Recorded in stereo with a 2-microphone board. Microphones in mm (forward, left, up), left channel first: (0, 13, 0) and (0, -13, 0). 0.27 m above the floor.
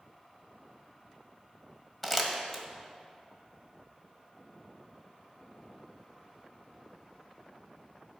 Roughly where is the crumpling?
Centre.